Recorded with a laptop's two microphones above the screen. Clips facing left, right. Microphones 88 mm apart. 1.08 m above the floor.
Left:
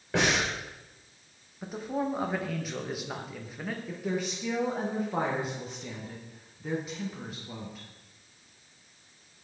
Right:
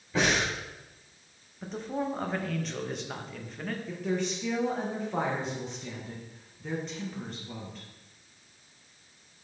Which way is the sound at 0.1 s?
65° left (ahead or behind).